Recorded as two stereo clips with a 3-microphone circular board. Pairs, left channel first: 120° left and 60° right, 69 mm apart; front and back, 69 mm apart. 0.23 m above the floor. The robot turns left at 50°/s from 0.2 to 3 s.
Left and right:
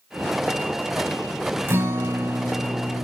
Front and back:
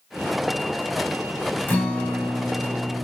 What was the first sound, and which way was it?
A guitar, 45° right.